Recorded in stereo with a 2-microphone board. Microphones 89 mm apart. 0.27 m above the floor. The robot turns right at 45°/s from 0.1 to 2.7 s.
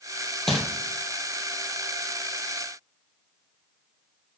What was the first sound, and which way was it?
Crumpling, 5° left (ahead or behind).